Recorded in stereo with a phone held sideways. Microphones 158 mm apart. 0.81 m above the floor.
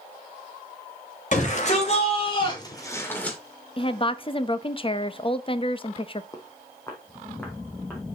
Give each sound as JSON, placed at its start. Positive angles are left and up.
{"t": 1.3, "sound": "a shout", "side_deg": 50, "distance_m": 4.5}
{"t": 3.8, "sound": "a woman speaking", "side_deg": 35, "distance_m": 0.6}
{"t": 6.3, "sound": "footsteps", "side_deg": 20, "distance_m": 1.6}